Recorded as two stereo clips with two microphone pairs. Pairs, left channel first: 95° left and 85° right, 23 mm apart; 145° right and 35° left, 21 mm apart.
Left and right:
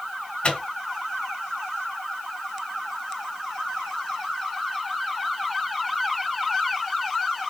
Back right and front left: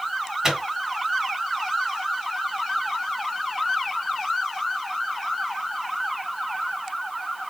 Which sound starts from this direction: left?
A microwave, at 0.4 s.